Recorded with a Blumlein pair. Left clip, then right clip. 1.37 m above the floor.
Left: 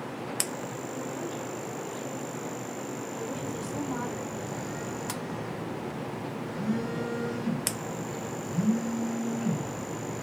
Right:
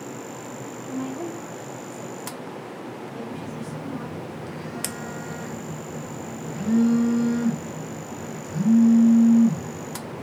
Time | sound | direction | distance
0.9 | a woman speaking | 40° right | 2.5 m
3.3 | a phone buzzing | 15° right | 1.2 m